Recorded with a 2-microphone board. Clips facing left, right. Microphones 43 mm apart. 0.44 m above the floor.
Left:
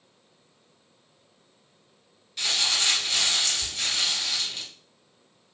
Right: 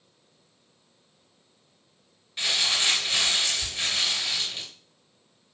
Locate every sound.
2.4 s crumpling: 25° right (ahead or behind), 1.9 m